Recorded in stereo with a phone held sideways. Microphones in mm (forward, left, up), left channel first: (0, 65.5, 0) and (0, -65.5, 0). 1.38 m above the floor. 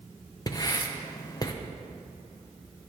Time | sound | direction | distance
0.5 | writing | 30° left (ahead or behind) | 0.7 m